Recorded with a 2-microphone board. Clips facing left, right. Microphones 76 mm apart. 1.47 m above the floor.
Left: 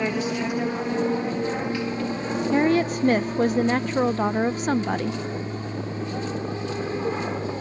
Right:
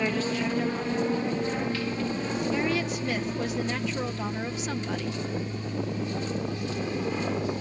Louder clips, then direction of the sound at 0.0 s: Left 2 dB; 10° left (ahead or behind).